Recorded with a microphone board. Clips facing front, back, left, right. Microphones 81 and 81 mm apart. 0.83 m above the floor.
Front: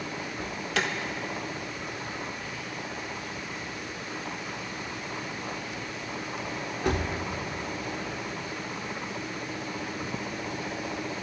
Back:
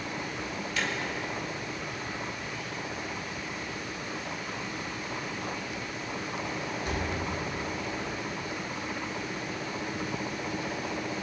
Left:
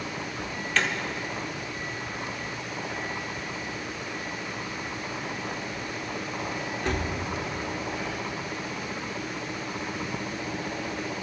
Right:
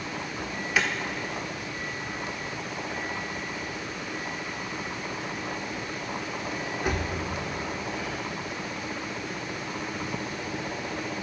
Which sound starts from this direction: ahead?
An alarm, at 0.4 s.